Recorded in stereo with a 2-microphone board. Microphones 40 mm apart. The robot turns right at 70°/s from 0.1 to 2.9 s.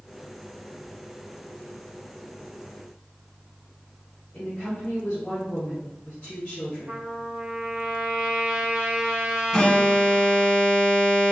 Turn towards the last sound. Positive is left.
turn(degrees=10)  # may be behind; listen again after turning